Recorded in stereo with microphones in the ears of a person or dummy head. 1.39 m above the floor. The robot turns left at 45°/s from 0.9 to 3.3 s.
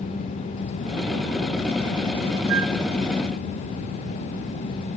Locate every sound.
2.5 s a flute: 70° right (ahead or behind), 1.8 m; by 2.8 s 80° right, 1.8 m